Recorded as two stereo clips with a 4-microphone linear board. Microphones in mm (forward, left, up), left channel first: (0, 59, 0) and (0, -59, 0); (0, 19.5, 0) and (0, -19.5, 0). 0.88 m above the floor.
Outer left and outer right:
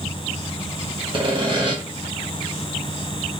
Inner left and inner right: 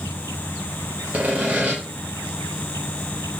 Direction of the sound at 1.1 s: 40° right (ahead or behind).